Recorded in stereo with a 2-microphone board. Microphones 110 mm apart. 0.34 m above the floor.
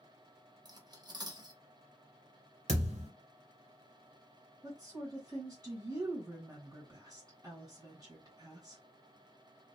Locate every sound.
0.7 s cutlery clinking: 35° right (ahead or behind), 0.5 m
2.7 s a thud: 80° right, 1.5 m
4.6 s a woman speaking: 30° right (ahead or behind), 1.7 m